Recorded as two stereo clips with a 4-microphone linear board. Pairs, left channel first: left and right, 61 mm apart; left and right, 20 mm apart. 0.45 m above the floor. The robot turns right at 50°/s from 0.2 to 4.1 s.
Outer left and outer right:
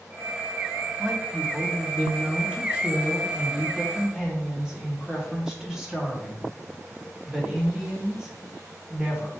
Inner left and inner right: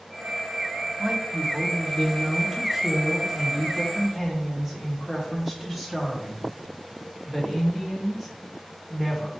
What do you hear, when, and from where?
1.0 s a woman speaking: centre (ahead or behind), 1.0 m; by 9.3 s 10° right (ahead or behind), 1.0 m